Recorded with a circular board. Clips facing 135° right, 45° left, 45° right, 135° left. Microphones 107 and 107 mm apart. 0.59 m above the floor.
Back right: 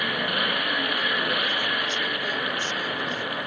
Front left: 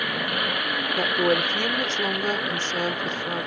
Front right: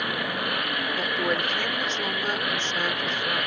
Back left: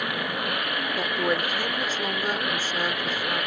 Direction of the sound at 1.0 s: 55° left.